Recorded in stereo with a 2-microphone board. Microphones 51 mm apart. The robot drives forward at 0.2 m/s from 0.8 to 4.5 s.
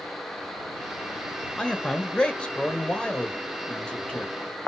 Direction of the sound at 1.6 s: 20° left (ahead or behind).